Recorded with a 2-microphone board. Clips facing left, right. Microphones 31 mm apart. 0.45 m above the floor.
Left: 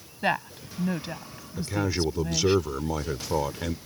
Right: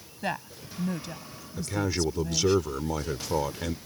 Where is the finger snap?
I don't hear a finger snap.